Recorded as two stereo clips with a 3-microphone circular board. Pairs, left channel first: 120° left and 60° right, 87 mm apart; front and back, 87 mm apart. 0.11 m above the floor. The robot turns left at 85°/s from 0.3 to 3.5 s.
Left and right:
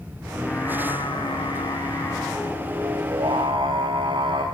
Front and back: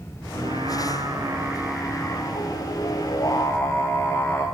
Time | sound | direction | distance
0.3 | singing | 155° right | 6.5 m